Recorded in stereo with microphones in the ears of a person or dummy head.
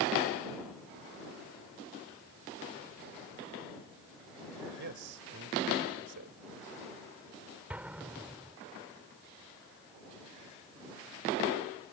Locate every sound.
4.8 s a man speaking: 60° right (ahead or behind)
7.7 s an explosion: 10° right (ahead or behind)